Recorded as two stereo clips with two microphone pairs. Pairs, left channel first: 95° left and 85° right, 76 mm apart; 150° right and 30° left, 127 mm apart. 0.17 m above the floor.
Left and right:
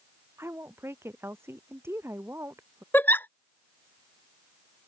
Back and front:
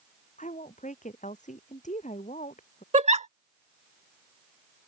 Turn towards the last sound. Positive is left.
turn(degrees=35)